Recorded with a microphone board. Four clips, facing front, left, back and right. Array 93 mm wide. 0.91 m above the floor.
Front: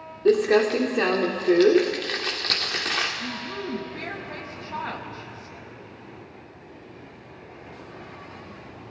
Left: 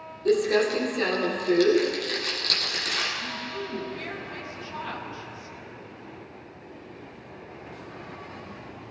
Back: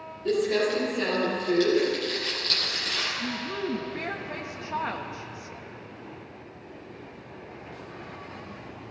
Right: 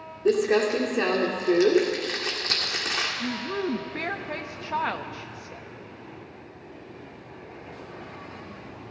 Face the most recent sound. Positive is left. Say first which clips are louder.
# right 5 dB, back 1 dB
turn(degrees=-100)